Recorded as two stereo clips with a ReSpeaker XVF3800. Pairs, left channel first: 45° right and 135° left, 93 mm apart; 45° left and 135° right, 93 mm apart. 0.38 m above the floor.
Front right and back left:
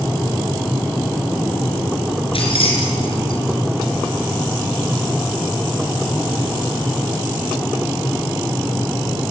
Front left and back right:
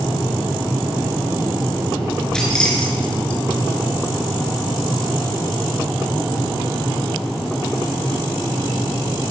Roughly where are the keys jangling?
Ahead right.